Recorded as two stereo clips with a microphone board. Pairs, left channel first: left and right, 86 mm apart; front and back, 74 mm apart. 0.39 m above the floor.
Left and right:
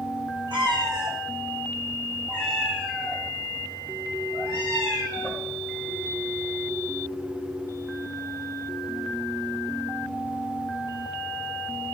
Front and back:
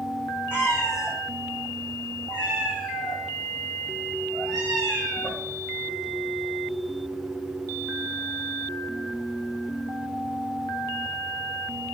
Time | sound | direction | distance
0.5 | a cat meowing | 65° right | 1.9 m